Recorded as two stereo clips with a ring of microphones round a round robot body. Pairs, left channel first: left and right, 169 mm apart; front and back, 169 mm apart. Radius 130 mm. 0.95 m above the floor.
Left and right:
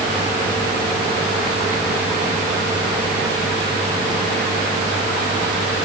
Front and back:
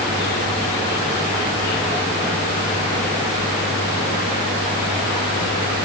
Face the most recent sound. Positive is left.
No sound to turn to.